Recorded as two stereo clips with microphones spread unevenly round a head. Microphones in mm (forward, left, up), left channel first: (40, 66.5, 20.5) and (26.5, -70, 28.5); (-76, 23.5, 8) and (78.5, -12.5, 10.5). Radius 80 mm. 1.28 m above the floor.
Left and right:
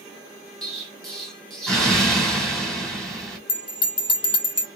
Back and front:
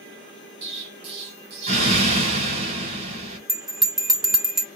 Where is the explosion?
5° right, 1.1 m.